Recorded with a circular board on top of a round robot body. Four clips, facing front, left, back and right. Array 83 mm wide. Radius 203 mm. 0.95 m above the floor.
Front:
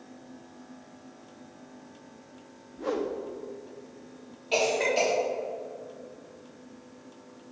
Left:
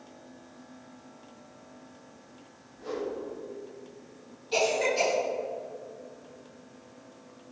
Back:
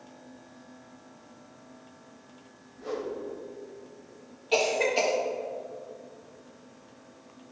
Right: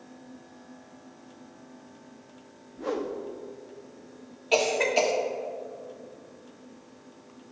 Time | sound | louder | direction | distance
2.8 | a whoosh | right 3 dB, front 4 dB | 45° right | 0.9 m
4.5 | a cough | right 2 dB, even | 85° right | 3.5 m